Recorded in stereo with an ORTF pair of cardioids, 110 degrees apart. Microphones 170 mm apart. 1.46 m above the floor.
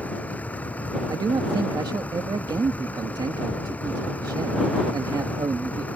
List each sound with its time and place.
0.0 s a vehicle: 10° left
1.1 s a man speaking: 25° right